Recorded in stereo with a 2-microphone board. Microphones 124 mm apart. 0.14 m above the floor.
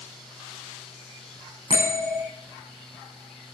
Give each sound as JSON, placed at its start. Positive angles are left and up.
{"t": 1.7, "sound": "a bell", "side_deg": -50, "distance_m": 10.0}